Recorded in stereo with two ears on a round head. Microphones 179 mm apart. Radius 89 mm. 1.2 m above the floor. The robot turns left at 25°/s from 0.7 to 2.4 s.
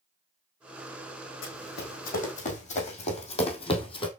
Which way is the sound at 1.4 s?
65° left (ahead or behind).